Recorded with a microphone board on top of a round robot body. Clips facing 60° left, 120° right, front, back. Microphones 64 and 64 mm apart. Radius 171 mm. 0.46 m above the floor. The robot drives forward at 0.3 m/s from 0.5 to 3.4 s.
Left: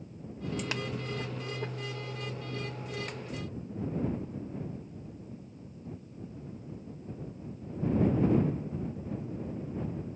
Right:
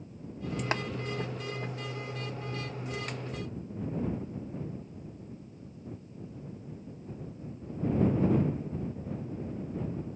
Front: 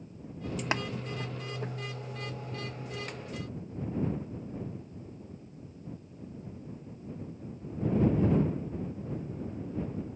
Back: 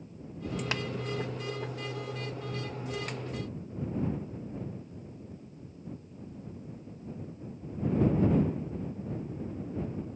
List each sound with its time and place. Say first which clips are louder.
0.7 s tapping: right 8 dB, front 4 dB; 65° right